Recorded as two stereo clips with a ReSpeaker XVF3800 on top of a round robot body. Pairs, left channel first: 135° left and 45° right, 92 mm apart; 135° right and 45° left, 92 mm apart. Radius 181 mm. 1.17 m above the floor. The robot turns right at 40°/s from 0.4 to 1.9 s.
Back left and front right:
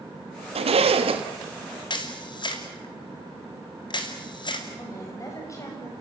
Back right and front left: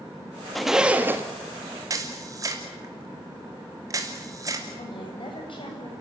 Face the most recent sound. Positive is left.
turn(degrees=-170)